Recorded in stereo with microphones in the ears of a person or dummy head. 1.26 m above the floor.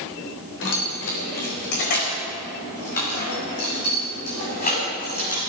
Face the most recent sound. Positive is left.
turn(degrees=40)  # may be behind; listen again after turning